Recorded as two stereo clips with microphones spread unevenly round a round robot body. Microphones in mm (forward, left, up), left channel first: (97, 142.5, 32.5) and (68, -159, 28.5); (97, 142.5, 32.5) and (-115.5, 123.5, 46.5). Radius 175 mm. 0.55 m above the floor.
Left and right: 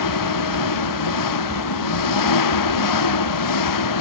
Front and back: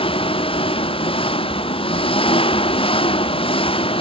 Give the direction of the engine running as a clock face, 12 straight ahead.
10 o'clock.